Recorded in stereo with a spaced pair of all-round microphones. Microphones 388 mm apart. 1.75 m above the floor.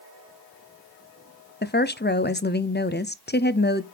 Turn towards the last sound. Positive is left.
turn(degrees=25)  # may be behind; listen again after turning